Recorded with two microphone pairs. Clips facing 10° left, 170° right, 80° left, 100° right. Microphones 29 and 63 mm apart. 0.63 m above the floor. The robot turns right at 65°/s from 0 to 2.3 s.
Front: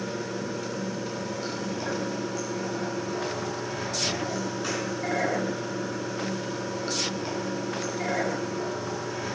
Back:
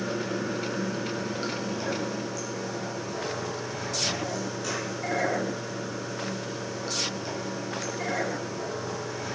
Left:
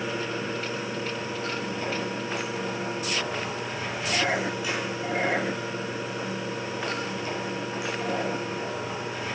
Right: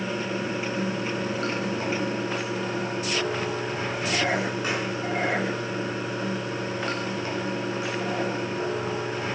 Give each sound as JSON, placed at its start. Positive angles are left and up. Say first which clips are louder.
{"t": 0.0, "sound": "running water", "louder": "back 2 dB, right 1 dB", "azimuth_deg": 155, "distance_m": 5.5}